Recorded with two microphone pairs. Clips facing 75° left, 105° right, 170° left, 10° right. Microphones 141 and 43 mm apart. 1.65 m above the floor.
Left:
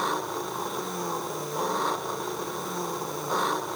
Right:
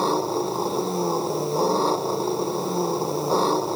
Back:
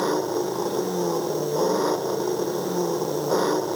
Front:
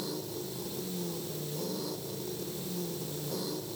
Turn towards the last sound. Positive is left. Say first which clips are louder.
# right 8 dB, back 15 dB
turn(degrees=-165)